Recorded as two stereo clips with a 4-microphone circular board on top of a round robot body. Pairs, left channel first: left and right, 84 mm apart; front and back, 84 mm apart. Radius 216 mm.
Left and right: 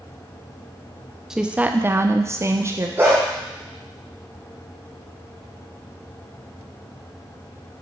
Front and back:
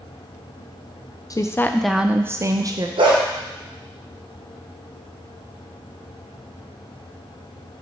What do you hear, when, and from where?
1.3 s a woman speaking: 5° right, 0.7 m; by 2.9 s 145° right, 1.0 m
3.0 s a dog barking: 155° right, 1.1 m